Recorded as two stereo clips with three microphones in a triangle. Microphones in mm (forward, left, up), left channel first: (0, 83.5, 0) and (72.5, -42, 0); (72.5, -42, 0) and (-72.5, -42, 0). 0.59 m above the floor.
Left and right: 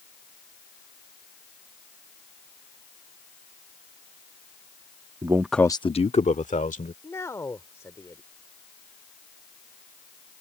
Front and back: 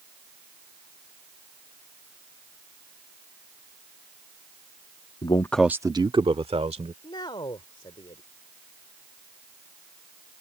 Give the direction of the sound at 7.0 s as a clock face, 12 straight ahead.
10 o'clock.